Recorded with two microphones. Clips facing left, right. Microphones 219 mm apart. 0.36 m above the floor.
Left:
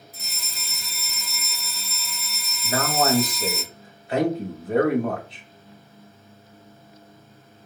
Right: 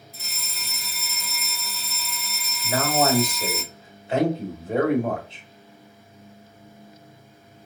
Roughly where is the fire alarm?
Centre.